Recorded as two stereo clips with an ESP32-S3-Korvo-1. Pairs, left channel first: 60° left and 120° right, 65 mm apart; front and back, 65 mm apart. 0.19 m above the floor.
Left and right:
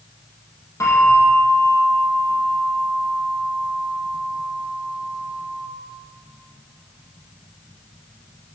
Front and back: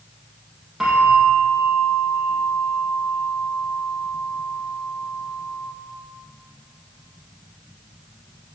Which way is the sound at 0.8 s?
100° left.